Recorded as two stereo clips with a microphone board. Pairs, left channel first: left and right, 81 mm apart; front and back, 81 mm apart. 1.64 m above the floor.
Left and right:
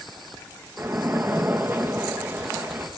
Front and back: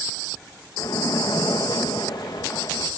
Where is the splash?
25° right, 2 m.